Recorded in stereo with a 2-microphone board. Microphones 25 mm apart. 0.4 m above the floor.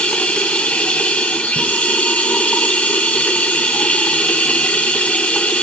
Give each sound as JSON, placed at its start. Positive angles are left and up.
{"t": 0.0, "sound": "running water", "side_deg": 70, "distance_m": 1.5}